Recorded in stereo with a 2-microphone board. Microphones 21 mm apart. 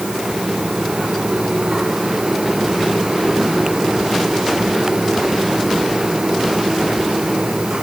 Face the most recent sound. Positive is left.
No sound to turn to.